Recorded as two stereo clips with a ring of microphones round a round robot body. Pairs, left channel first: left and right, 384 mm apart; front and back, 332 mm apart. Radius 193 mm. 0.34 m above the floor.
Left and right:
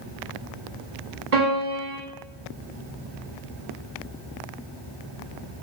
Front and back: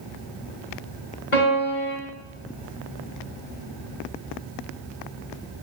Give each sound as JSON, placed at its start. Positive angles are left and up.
{"t": 1.3, "sound": "a piano", "azimuth_deg": -45, "distance_m": 1.6}